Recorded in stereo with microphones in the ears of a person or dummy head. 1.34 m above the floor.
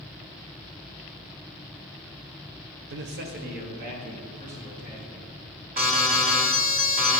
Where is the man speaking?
65° right (ahead or behind), 0.6 m; by 5.7 s 45° right (ahead or behind), 4.5 m.